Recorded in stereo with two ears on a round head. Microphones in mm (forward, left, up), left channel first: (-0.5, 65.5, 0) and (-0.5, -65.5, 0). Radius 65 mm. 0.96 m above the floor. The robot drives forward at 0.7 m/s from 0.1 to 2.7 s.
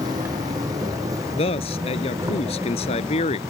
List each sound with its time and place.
0.0 s an insect: 25° right (ahead or behind); by 3.5 s 20° right (ahead or behind)
1.3 s a man speaking: 40° left (ahead or behind)